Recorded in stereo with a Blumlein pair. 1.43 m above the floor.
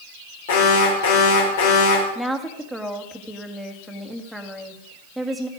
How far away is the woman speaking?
About 1.9 m.